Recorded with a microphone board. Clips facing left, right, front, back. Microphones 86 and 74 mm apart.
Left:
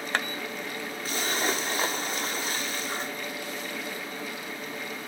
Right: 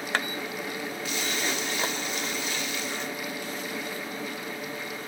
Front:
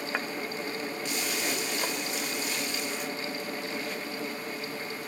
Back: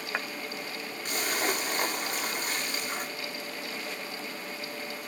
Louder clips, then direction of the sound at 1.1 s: Left 4 dB, back 5 dB; 135° left.